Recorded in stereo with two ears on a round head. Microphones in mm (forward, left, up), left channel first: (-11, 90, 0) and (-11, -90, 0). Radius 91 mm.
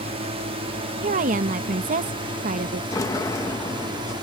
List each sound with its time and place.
0.0 s a drone: 30° right (ahead or behind); by 4.2 s 25° right (ahead or behind)
1.0 s a woman speaking: 45° right (ahead or behind)
2.9 s a sliding door: 20° left (ahead or behind)